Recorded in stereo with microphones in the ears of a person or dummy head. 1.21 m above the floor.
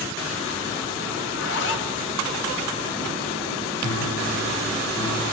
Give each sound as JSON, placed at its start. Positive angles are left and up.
{"t": 1.2, "sound": "a zipper", "side_deg": 65, "distance_m": 2.0}
{"t": 3.8, "sound": "a piano", "side_deg": 80, "distance_m": 10.0}